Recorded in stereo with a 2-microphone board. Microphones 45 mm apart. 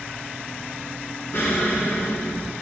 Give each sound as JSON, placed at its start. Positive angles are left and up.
{"t": 1.3, "sound": "an explosion", "side_deg": 50, "distance_m": 2.5}